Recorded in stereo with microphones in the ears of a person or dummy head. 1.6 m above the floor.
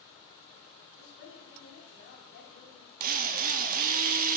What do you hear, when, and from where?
1.0 s a woman speaking: 70° left (ahead or behind), 4 m
3.0 s a drill: 45° right (ahead or behind), 0.7 m